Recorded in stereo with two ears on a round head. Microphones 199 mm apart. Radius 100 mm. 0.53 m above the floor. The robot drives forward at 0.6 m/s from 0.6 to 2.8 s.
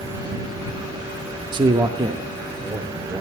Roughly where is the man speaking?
Right.